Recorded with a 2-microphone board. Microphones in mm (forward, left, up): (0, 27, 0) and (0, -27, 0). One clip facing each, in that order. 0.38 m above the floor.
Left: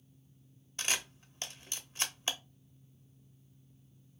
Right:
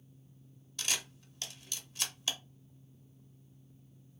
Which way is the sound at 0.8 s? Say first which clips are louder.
Left 2 dB; 35° left (ahead or behind).